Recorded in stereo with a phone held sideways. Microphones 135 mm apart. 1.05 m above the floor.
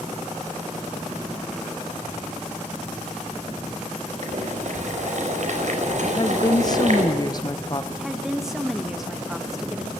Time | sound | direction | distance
4.2 | boiling | 60° right (ahead or behind) | 5 m
6.0 | a woman speaking | 30° left (ahead or behind) | 0.9 m
7.9 | a woman speaking | 5° right (ahead or behind) | 1.5 m